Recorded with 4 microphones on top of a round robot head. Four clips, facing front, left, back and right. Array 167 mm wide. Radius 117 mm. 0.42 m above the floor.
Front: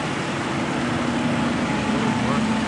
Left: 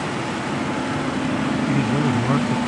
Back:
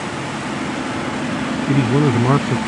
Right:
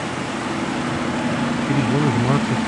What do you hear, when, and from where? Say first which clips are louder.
1.7 s a man speaking: right 3 dB, back 6 dB; 165° right